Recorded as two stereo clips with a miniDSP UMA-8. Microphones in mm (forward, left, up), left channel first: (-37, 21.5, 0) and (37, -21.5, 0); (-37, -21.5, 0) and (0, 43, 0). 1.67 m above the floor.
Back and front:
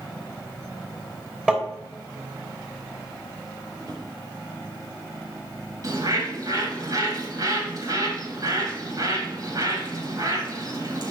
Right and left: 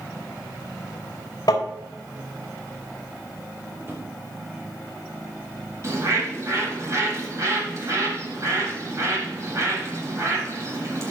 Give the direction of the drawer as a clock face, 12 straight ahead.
12 o'clock.